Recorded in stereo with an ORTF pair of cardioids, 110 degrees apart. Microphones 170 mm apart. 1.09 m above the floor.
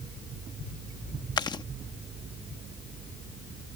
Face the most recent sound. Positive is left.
turn(degrees=25)